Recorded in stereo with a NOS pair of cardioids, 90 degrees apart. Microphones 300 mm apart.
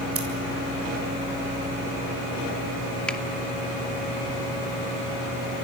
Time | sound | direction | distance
0.1 | scissors | 50° right | 7.5 m
3.1 | a finger snap | 5° left | 2.5 m